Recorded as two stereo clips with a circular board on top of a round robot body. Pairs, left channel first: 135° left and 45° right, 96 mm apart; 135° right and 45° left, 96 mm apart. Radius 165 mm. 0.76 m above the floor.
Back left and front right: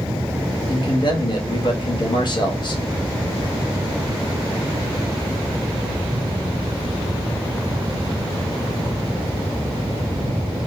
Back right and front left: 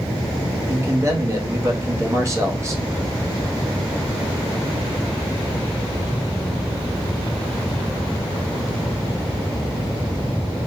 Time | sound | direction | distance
0.7 | a man speaking | 100° left | 1.4 m